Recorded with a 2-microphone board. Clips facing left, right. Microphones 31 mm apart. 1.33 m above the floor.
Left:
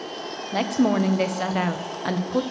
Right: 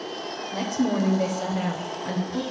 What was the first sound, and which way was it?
A woman speaking, 55° left (ahead or behind).